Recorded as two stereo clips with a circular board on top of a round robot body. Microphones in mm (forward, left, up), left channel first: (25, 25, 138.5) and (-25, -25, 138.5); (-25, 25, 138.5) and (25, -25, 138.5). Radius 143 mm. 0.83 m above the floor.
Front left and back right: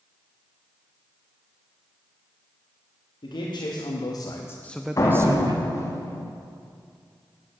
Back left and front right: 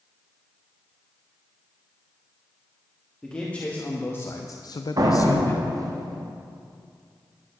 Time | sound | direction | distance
3.2 | a man speaking | 60° left | 1.4 m
5.0 | a door slam | 5° right | 1.1 m